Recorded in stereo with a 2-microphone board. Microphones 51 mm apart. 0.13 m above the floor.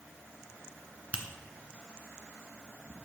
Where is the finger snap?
25° right (ahead or behind), 1.2 m.